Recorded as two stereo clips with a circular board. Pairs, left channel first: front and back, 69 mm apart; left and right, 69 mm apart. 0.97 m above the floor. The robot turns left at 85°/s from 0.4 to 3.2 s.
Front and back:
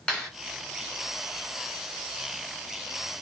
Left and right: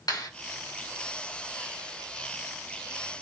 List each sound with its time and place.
0.1 s a clap: 75° left, 5 m